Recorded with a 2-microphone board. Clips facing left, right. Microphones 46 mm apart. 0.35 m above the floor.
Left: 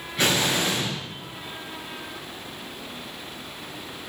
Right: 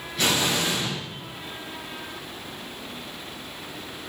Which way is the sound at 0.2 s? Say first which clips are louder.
Left 1 dB; 35° left (ahead or behind).